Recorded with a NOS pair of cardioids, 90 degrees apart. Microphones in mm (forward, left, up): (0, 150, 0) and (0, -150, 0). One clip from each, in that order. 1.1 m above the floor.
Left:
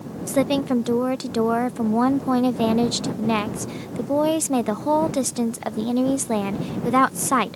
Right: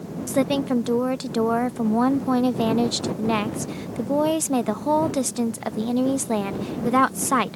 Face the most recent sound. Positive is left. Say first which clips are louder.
# left 1 dB
turn(degrees=5)